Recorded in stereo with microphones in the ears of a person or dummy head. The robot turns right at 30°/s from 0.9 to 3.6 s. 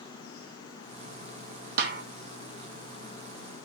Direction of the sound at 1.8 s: 55° right (ahead or behind).